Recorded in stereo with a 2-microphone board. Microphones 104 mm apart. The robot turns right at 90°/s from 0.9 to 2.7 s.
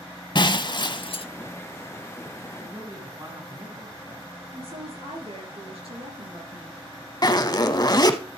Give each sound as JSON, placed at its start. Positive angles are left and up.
{"t": 0.3, "sound": "breaking glass", "azimuth_deg": 55, "distance_m": 0.6}
{"t": 2.6, "sound": "a man speaking", "side_deg": -50, "distance_m": 2.5}
{"t": 4.5, "sound": "a woman speaking", "side_deg": -70, "distance_m": 4.0}
{"t": 7.2, "sound": "a zipper", "side_deg": 40, "distance_m": 0.8}